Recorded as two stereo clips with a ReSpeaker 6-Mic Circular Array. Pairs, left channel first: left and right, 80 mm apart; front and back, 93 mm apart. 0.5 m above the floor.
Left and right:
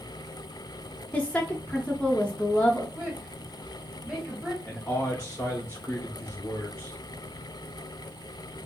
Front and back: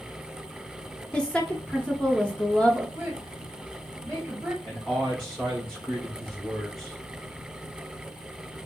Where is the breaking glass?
No breaking glass in this recording.